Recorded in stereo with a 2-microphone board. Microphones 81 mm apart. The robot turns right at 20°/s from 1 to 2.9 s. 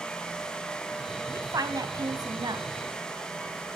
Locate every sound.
1.3 s a woman speaking: 45° right (ahead or behind), 3 m; by 2.7 s 65° right (ahead or behind), 3 m